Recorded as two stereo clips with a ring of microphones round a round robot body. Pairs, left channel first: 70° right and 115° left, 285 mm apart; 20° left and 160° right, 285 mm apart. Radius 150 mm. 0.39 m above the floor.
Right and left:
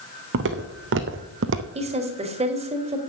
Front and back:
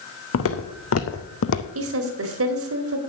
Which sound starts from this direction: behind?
A woman speaking, at 1.8 s.